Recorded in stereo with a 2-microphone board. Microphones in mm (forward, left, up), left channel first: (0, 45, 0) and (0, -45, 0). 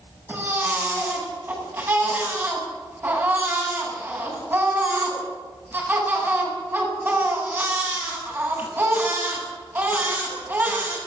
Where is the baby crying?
25° right (ahead or behind), 8 m.